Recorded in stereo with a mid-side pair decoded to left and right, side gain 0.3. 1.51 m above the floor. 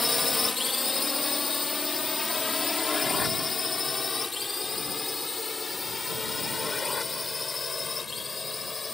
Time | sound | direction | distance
0.0 | a drone | 35° left | ?